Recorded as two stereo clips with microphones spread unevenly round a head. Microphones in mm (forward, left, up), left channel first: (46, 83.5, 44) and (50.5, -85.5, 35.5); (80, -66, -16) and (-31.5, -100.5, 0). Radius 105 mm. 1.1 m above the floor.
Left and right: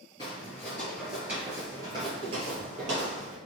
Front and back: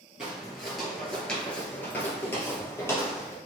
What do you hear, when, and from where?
0.2 s footsteps: 135° left, 1.2 m; by 3.4 s 55° right, 1.6 m